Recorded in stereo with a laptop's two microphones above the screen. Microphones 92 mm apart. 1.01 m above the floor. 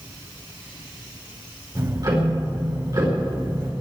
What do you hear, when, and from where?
1.8 s ticking: 45° right (ahead or behind), 4.5 m